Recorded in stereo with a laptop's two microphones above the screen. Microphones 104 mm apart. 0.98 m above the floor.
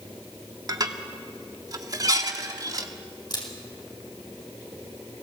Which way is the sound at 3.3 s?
45° left (ahead or behind).